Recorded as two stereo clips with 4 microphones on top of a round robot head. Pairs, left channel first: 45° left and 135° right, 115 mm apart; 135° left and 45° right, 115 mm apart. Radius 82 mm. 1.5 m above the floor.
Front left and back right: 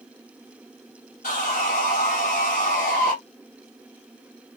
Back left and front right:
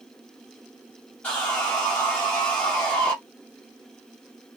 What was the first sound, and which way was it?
Sawing, 55° left.